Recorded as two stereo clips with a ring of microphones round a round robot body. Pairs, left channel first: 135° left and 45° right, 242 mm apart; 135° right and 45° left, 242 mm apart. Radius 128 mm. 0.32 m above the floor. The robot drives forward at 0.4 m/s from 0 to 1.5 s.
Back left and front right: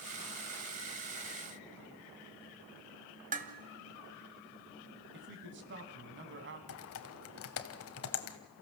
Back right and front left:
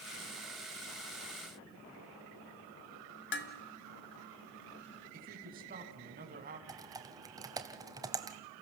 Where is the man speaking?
5° right, 3.5 m.